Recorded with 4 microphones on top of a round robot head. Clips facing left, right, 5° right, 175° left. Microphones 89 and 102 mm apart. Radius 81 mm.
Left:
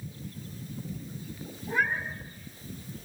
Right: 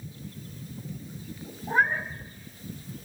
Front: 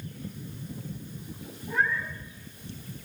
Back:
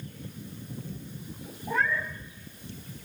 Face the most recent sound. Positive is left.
turn(degrees=-140)